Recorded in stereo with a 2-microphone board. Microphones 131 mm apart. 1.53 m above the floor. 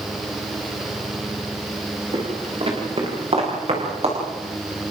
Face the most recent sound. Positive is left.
turn(degrees=-50)  # may be behind; listen again after turning